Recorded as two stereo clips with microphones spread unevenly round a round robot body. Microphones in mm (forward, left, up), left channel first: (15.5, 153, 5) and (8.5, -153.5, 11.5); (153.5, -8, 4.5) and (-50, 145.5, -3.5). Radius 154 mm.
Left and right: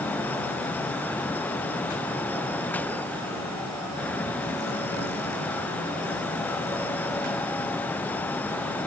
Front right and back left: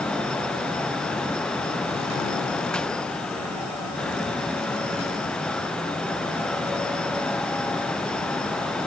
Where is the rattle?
No rattle in this recording.